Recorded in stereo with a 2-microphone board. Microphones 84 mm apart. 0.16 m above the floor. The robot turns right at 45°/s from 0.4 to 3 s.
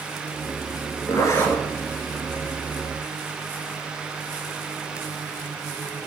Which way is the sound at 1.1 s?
40° left (ahead or behind).